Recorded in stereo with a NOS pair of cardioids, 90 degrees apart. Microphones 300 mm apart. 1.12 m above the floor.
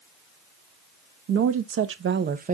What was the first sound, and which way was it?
A woman speaking, 60° right.